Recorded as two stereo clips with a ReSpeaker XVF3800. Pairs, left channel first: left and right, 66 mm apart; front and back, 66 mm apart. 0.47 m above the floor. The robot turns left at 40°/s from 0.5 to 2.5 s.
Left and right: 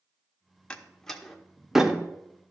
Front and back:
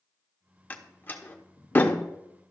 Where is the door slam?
30° left, 0.7 m; by 2.0 s 25° right, 0.7 m.